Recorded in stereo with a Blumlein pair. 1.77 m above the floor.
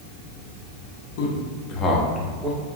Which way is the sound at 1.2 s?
55° left.